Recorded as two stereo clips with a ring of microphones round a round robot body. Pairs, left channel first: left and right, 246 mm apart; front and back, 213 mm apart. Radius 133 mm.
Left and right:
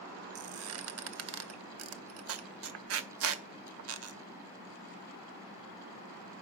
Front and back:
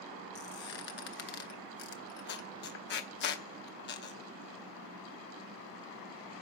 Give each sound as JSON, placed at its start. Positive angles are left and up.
{"t": 0.3, "sound": "a squeak", "azimuth_deg": -50, "distance_m": 0.8}